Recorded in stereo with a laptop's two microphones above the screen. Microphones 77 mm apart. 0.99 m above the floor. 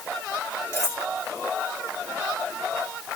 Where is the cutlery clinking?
35° left (ahead or behind), 1.8 m.